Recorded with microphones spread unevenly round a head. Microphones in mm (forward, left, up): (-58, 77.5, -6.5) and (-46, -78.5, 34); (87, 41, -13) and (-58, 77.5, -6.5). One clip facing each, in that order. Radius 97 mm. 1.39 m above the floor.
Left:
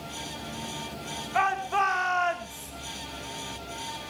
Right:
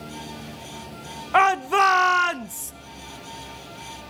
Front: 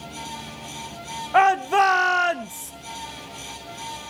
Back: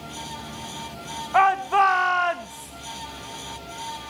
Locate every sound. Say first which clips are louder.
1.3 s a shout: right 7 dB, front 2 dB; 75° right, 0.7 m